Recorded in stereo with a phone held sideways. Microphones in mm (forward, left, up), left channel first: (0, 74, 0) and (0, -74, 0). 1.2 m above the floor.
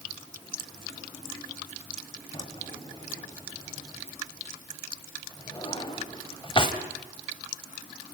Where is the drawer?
35° left (ahead or behind), 1.5 m.